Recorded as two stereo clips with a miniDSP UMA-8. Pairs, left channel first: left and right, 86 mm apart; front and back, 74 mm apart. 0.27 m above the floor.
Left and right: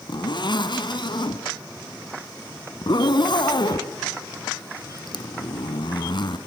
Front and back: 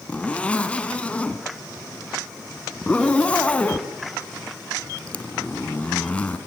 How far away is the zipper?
About 2.5 m.